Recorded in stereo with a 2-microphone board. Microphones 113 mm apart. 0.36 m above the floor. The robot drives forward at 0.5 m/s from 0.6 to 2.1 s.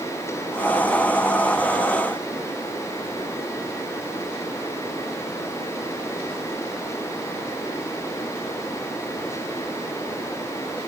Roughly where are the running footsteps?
No running footsteps in this recording.